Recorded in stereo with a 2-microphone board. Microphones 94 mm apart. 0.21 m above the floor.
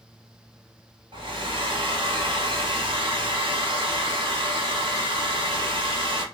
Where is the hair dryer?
65° right (ahead or behind), 0.9 m.